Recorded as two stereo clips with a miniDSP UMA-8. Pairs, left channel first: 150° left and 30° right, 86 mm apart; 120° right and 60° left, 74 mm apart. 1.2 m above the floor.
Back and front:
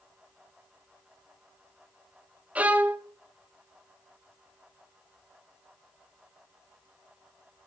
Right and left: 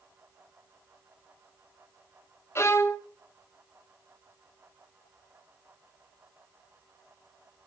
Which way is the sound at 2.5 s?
95° right.